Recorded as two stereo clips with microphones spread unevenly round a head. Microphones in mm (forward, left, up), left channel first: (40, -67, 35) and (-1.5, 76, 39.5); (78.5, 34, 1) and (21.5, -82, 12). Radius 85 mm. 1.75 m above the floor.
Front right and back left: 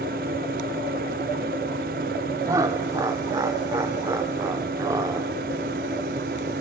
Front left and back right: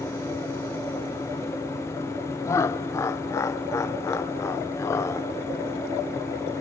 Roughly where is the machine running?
Behind left.